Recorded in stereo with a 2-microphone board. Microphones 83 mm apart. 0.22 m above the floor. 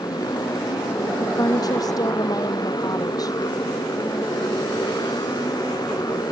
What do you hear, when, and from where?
0.0 s a motorcycle: 50° left (ahead or behind)
1.2 s a woman speaking: 50° left (ahead or behind)